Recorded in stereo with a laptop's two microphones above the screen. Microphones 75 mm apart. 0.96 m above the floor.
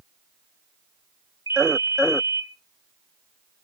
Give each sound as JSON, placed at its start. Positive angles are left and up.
{"t": 1.5, "sound": "a ringtone", "side_deg": 65, "distance_m": 2.5}